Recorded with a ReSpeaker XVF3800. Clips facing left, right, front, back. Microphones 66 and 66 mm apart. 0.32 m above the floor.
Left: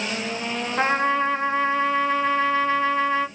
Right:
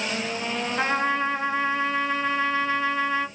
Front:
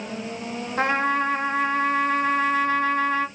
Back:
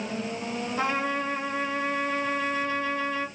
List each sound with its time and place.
0.8 s a trumpet: 40° left, 1.0 m